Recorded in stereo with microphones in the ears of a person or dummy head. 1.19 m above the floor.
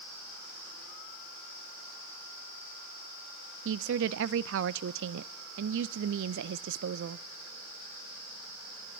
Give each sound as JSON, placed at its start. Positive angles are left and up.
{"t": 3.6, "sound": "a woman speaking", "side_deg": -60, "distance_m": 0.5}